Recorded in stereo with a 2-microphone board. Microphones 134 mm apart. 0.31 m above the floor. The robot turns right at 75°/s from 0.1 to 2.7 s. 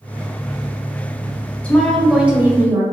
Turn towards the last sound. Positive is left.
turn(degrees=-20)  # may be behind; listen again after turning